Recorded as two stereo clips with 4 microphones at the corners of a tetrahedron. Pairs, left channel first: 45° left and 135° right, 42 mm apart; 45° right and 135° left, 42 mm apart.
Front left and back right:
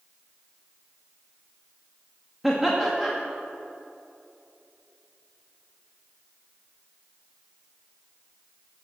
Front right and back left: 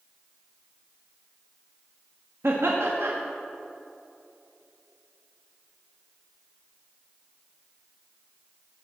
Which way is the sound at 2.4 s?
140° left.